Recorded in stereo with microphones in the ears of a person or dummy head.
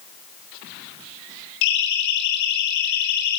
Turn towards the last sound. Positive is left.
turn(degrees=65)  # may be behind; listen again after turning